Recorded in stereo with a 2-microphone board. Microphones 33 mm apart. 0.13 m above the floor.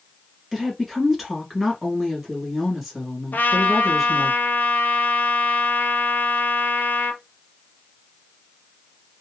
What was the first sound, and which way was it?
A woman speaking, 10° right (ahead or behind).